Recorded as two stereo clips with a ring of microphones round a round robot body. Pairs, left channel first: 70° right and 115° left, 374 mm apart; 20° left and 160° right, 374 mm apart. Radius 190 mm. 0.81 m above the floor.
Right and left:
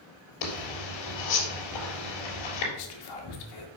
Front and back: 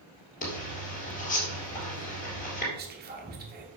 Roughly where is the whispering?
Right.